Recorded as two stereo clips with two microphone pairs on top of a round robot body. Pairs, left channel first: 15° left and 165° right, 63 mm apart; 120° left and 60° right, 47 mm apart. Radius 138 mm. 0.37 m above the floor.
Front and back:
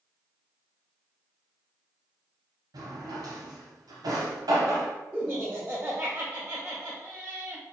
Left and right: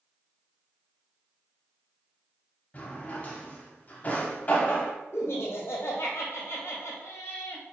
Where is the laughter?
125° left, 1.4 m.